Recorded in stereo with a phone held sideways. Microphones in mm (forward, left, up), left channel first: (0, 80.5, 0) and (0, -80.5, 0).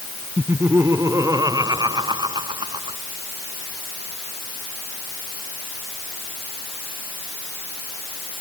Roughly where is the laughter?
Centre.